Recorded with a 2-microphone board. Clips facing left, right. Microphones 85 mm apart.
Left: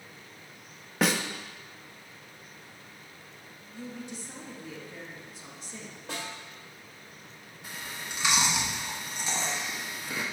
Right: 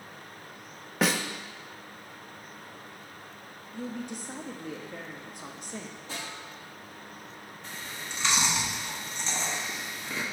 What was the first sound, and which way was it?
A snare drum, centre (ahead or behind).